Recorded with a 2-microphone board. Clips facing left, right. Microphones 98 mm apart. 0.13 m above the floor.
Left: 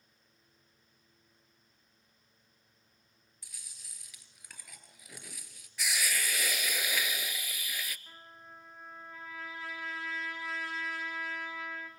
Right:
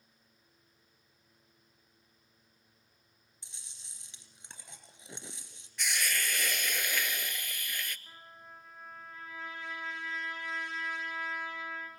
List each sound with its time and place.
3.4 s chewing: 30° right (ahead or behind), 2.5 m
5.8 s a hiss: 5° left (ahead or behind), 0.6 m
8.1 s a trumpet: 5° left (ahead or behind), 6.5 m